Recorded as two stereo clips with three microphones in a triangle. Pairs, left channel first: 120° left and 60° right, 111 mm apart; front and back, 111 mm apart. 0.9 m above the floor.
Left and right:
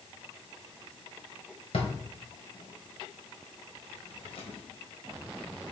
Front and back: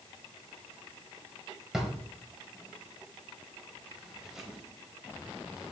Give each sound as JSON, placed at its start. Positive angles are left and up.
{"t": 1.7, "sound": "a drawer", "azimuth_deg": 95, "distance_m": 1.8}